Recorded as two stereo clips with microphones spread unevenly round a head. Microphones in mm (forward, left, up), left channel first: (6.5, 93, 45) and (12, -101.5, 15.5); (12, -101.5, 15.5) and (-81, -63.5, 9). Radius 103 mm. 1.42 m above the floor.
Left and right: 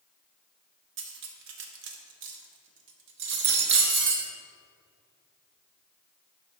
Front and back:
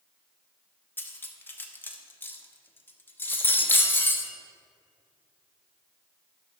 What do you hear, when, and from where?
1.0 s cutlery clinking: 80° right, 1.0 m